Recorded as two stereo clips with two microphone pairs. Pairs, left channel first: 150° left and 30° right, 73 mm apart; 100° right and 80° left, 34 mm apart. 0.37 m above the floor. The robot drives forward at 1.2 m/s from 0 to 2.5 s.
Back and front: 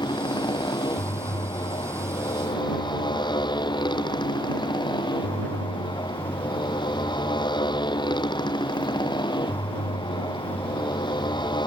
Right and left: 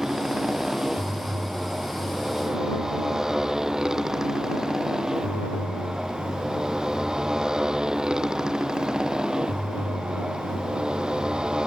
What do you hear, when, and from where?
0.0 s a motorcycle: 155° left; by 11.7 s 145° left